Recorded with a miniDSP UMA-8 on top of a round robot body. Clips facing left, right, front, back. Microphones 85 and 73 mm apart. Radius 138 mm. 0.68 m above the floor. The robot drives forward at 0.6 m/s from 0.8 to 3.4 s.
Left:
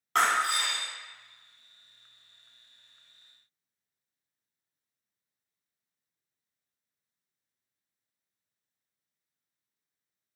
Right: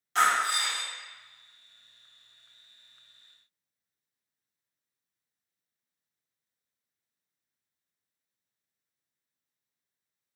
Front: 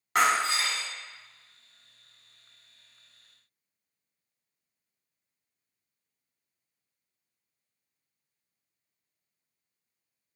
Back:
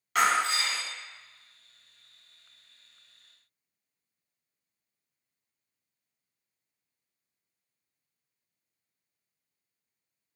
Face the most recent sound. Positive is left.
turn(degrees=130)